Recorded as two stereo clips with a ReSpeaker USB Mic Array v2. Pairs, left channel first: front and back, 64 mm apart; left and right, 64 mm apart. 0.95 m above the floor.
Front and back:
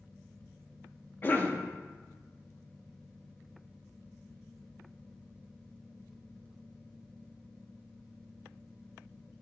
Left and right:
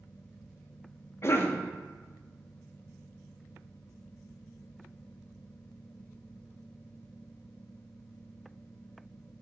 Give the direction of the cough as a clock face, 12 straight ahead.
10 o'clock.